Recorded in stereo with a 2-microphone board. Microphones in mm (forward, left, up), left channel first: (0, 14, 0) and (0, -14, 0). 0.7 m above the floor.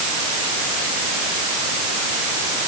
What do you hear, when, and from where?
Only background noise.